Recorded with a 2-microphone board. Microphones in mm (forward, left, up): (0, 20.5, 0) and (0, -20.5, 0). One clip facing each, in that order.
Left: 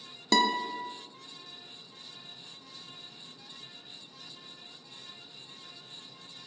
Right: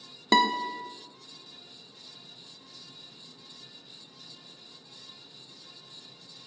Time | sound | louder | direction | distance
0.3 | a guitar | right 3 dB | 25° right (ahead or behind) | 0.5 m